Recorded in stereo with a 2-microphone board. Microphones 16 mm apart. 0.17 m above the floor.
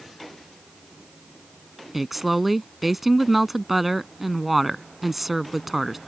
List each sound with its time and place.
1.9 s a woman speaking: 10° right (ahead or behind)